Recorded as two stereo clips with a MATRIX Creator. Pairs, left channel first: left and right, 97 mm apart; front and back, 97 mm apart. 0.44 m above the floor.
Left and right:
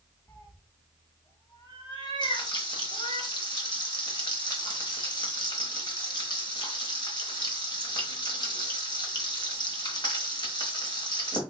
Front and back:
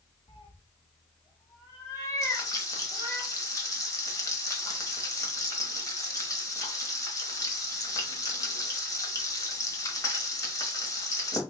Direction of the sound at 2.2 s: 55° left.